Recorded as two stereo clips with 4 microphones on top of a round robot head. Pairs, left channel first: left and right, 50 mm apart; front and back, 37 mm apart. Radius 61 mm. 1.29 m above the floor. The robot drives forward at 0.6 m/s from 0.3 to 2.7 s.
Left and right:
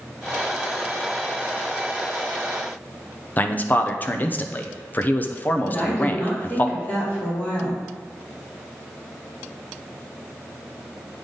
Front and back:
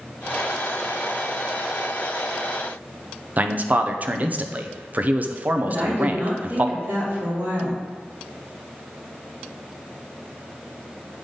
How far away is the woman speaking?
About 3 m.